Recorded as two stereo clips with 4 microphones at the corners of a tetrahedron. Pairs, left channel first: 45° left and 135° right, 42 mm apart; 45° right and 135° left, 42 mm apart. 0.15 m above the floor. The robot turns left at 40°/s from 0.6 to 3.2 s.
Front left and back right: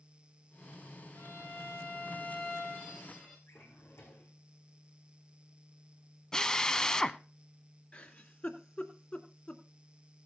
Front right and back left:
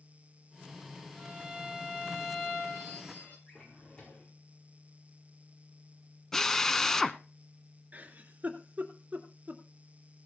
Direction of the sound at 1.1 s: 65° left.